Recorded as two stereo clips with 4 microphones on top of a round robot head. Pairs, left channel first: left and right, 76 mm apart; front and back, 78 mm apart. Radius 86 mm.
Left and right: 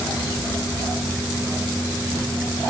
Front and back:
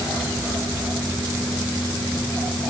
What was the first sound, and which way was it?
Only background noise.